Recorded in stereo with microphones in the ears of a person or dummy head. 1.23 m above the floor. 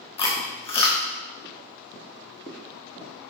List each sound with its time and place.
0.2 s chewing: 25° left (ahead or behind), 1.5 m